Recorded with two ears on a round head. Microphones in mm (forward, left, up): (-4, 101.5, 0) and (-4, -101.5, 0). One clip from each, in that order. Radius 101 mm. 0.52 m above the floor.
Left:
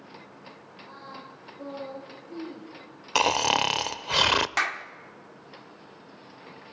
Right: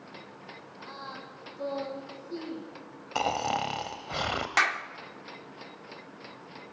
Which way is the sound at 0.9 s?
45° right (ahead or behind).